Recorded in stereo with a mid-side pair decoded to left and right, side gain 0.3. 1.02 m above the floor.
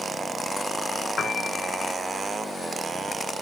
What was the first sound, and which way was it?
A piano, 65° left.